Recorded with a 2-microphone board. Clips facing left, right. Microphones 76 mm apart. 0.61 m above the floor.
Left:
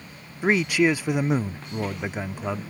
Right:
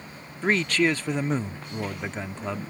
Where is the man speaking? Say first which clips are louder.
Left 2 dB; 10° left (ahead or behind).